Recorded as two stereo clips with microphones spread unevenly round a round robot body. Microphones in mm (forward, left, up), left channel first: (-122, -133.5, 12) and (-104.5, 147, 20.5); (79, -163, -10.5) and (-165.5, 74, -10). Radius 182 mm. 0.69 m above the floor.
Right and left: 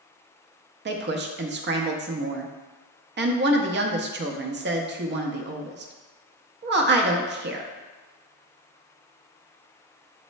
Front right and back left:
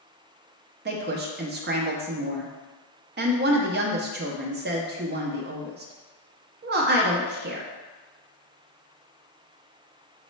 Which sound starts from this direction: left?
A woman speaking, at 0.8 s.